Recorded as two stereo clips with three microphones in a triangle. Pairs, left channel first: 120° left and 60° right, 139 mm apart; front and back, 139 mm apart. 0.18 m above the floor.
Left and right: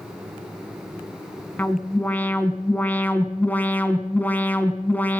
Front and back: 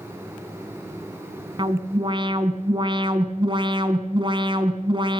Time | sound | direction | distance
1.6 | an alarm | 170° right | 2 m